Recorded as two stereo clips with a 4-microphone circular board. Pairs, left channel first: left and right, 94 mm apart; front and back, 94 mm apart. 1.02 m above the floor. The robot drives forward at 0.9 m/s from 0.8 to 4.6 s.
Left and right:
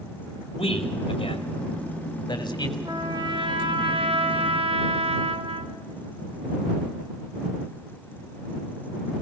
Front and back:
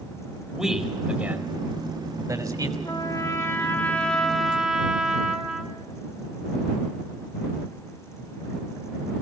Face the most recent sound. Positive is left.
turn(degrees=-95)